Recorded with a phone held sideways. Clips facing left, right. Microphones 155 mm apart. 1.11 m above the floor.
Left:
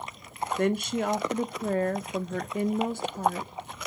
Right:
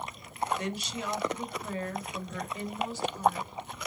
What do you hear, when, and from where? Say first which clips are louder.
0.6 s a woman speaking: left 9 dB; 55° left (ahead or behind), 0.9 m